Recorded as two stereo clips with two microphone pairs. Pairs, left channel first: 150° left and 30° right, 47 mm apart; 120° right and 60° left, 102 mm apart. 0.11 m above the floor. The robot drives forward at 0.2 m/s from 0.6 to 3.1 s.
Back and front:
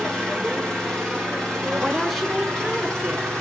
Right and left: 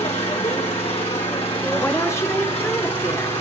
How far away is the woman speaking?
About 1.1 m.